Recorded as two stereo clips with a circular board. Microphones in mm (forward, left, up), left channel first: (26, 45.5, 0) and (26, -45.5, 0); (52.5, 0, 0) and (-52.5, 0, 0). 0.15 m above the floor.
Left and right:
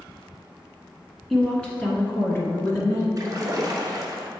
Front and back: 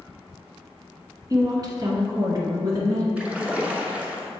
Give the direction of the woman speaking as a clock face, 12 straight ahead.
6 o'clock.